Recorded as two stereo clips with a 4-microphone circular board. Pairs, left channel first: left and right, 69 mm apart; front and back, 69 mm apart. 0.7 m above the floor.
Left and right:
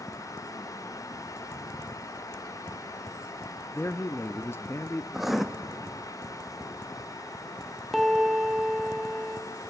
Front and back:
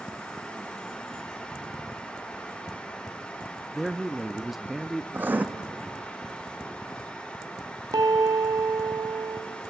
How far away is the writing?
About 0.7 m.